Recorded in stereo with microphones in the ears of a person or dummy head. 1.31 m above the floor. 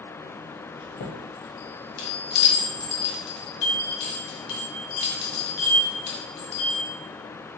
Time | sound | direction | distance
0.8 | a chime | 60° left (ahead or behind) | 1.2 m